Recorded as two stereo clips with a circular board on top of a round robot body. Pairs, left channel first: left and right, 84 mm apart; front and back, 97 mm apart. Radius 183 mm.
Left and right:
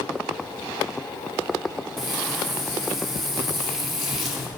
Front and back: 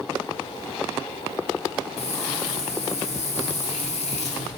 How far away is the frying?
About 1.2 m.